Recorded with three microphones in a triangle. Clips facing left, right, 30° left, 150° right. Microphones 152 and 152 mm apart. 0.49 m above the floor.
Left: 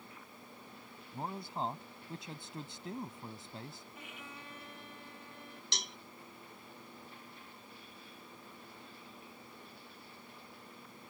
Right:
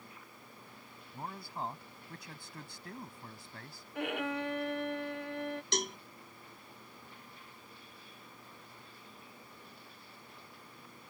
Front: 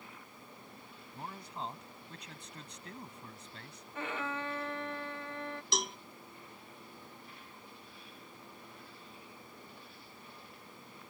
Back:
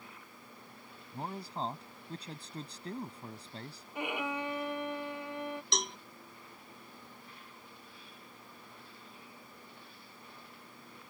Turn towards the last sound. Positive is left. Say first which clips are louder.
# right 10 dB, front 5 dB
turn(degrees=-60)